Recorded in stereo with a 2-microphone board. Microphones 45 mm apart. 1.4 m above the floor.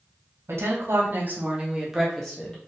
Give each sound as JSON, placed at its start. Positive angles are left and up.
{"t": 0.5, "sound": "a woman speaking", "side_deg": -65, "distance_m": 1.2}